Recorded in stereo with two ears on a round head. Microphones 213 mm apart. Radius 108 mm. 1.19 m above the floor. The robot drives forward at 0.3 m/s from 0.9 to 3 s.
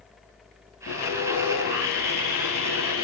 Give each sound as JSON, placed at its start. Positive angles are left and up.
{"t": 0.9, "sound": "sawing", "side_deg": 45, "distance_m": 10.0}